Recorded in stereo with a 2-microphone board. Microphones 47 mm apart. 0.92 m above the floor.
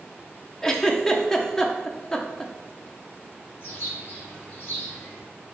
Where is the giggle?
10° left (ahead or behind), 0.5 m.